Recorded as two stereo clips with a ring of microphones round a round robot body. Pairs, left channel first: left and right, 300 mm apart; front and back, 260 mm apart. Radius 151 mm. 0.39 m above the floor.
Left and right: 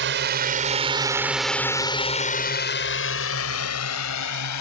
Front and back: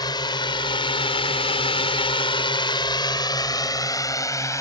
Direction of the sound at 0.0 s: 70° right.